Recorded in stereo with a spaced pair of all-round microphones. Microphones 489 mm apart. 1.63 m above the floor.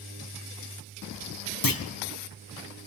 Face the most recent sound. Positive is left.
turn(degrees=45)  # may be behind; listen again after turning